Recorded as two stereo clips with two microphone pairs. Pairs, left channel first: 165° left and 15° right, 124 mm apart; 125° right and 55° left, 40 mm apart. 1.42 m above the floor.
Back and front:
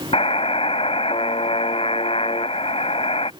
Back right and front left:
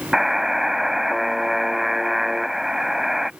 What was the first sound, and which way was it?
A buzzer, 135° left.